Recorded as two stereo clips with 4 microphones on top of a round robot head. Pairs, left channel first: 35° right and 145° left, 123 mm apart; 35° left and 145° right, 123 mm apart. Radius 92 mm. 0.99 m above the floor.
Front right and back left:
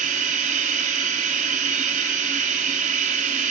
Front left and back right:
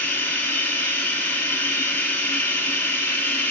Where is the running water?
115° left, 3.5 m.